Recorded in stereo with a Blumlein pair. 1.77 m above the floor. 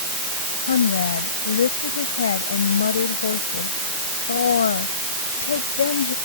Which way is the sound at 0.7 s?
65° left.